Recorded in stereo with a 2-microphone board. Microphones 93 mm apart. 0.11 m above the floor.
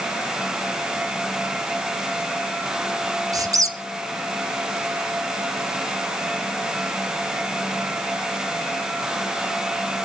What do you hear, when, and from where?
3.3 s a squeak: 40° right (ahead or behind), 1.1 m